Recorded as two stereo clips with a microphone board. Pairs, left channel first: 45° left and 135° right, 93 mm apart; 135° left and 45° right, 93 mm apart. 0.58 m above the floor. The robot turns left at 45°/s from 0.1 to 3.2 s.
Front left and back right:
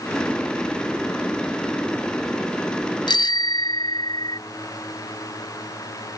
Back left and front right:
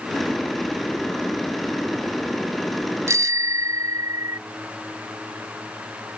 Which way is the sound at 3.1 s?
15° left.